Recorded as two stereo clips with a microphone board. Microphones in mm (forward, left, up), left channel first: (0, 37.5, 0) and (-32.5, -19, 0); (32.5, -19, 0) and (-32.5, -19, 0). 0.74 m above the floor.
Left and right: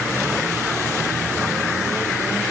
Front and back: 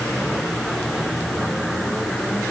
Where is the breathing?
I don't hear breathing.